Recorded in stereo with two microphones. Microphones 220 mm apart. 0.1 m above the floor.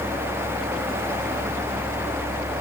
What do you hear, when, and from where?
Only background noise.